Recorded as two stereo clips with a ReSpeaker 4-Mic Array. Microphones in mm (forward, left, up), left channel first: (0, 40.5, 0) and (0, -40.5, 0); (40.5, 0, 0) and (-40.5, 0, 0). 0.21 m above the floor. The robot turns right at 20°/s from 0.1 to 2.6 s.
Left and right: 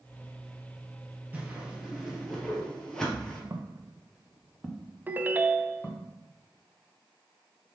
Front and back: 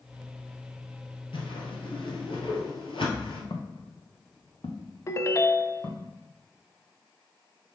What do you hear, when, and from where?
1.3 s a whoosh: 20° right, 2 m; by 3.4 s 5° left, 2 m
3.5 s footsteps: 35° right, 1.3 m; by 6.1 s 30° left, 2.5 m
5.1 s a ringtone: 30° right, 0.5 m